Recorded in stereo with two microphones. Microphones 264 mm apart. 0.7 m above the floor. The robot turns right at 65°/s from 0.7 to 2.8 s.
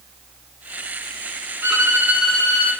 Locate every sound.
1.6 s a violin: 100° right, 6 m; by 2.7 s 25° right, 6 m